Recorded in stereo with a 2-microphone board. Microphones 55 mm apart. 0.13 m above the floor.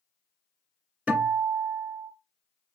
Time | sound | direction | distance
1.1 | a guitar | 25° right (ahead or behind) | 1.6 m